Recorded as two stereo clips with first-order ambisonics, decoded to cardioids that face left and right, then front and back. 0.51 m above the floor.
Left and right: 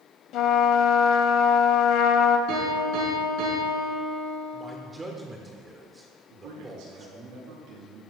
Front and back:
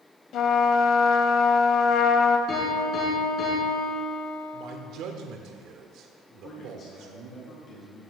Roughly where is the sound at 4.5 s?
Behind.